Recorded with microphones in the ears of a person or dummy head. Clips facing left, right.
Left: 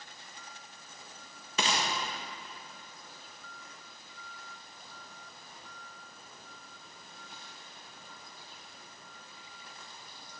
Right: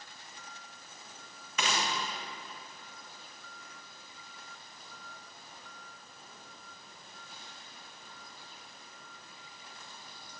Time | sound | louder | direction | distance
1.6 | a gunshot | left 1 dB | 25° left (ahead or behind) | 1.5 m